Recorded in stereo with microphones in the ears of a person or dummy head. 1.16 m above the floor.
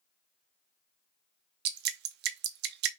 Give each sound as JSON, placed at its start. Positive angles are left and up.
{"t": 1.6, "sound": "dripping", "side_deg": -50, "distance_m": 0.5}